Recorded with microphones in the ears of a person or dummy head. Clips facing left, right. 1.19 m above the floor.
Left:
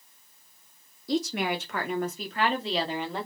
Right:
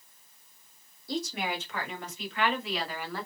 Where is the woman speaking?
55° left (ahead or behind), 2 m; by 3.3 s 10° left (ahead or behind), 2 m.